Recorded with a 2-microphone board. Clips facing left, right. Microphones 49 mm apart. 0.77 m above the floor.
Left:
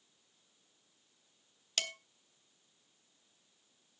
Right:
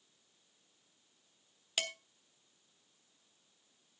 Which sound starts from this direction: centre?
Dishes clattering, at 1.8 s.